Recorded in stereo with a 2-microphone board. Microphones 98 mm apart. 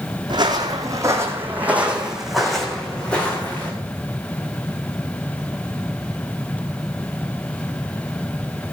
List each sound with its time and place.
0.3 s footsteps: 45° right (ahead or behind), 2.5 m; by 3.7 s 20° left (ahead or behind), 3.5 m